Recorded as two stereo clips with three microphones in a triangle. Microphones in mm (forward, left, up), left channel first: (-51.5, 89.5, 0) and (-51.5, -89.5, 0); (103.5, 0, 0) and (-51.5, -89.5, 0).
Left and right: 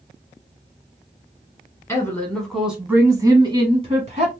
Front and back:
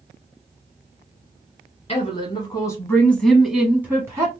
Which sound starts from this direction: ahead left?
A woman speaking, at 1.9 s.